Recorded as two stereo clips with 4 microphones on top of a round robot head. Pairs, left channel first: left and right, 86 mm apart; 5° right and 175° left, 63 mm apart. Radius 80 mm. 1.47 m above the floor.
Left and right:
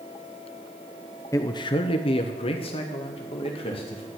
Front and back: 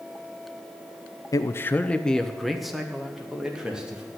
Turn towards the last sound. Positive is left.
turn(degrees=100)